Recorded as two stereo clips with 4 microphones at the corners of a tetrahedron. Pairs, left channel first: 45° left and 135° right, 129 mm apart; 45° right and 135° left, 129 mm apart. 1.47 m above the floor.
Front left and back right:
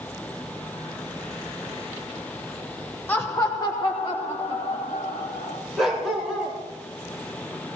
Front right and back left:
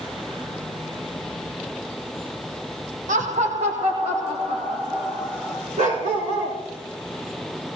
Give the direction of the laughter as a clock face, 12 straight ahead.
8 o'clock.